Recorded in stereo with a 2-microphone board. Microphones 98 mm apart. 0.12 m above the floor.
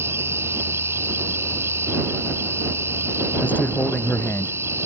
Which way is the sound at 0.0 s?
25° right (ahead or behind).